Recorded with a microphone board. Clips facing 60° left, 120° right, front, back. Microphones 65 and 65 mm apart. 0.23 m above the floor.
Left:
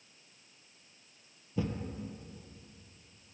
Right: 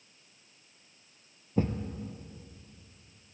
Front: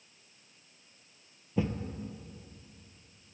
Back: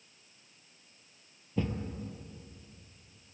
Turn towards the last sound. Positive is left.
turn(degrees=-75)